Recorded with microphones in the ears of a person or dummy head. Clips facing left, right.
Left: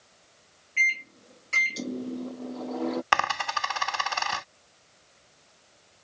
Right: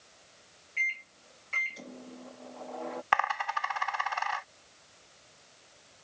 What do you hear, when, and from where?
0.8 s a microwave: 55° left (ahead or behind)
3.1 s a dropped coin: 50° left (ahead or behind)